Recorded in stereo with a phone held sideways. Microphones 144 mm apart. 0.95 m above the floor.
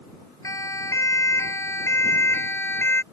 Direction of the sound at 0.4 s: 20° left (ahead or behind).